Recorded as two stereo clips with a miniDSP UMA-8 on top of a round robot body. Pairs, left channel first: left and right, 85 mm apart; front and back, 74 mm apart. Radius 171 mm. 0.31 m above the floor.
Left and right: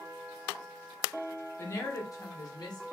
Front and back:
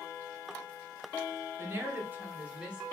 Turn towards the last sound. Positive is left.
turn(degrees=105)